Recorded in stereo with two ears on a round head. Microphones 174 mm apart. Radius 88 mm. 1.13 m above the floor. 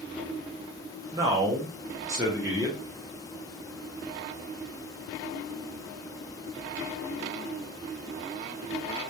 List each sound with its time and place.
1.1 s a man speaking: 15° right (ahead or behind), 0.6 m